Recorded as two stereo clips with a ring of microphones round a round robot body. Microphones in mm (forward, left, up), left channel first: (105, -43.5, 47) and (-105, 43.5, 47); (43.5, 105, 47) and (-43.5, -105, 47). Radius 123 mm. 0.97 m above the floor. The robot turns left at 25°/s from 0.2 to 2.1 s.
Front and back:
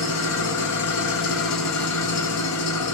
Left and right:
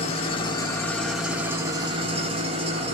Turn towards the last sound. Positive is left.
turn(degrees=-45)